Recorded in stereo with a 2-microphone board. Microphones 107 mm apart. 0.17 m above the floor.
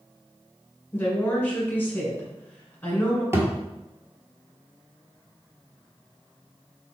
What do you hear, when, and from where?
0.9 s a woman speaking: 20° left (ahead or behind), 1.5 m
3.3 s a thud: 25° right (ahead or behind), 0.9 m